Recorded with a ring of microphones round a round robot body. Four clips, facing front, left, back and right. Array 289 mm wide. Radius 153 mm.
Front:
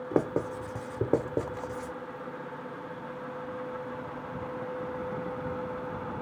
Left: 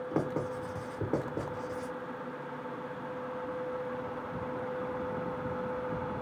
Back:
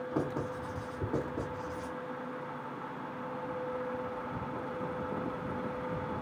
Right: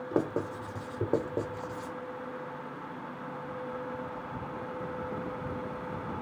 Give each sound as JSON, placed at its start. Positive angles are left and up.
{"t": 0.1, "sound": "writing", "azimuth_deg": -15, "distance_m": 0.9}